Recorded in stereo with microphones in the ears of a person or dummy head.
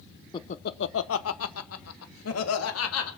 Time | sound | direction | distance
0.3 | laughter | 20° left (ahead or behind) | 0.6 m